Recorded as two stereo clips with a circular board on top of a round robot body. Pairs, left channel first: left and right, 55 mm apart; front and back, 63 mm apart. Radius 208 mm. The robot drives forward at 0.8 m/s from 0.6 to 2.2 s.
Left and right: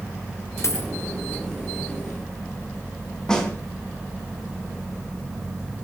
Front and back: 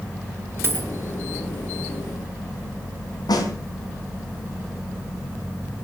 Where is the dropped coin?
125° left, 2 m; by 0.9 s 130° left, 2.5 m.